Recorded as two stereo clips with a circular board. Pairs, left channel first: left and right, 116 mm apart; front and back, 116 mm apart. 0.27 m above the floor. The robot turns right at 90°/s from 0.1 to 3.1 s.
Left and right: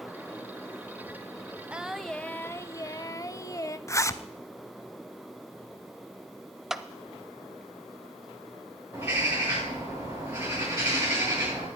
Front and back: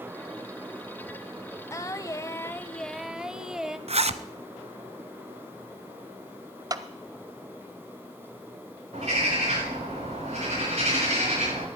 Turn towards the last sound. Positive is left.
turn(degrees=-160)